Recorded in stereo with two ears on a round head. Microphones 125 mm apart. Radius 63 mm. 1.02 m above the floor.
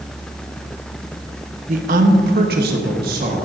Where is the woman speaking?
55° right (ahead or behind), 1.0 m; by 3.5 s 70° right (ahead or behind), 1.7 m.